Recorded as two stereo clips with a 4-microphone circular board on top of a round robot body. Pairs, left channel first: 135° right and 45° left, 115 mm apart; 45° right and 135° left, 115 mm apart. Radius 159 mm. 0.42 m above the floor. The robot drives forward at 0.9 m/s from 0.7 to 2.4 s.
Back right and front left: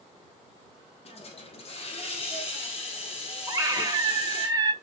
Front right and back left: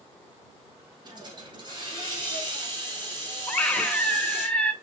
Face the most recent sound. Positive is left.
turn(degrees=30)